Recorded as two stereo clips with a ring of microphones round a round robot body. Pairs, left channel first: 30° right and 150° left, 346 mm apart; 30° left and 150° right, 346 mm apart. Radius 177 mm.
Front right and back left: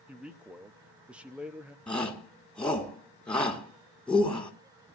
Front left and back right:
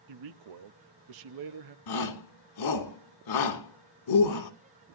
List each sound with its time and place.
0.1 s a man speaking: 125° right, 1.0 m
1.9 s a shout: 55° left, 3.5 m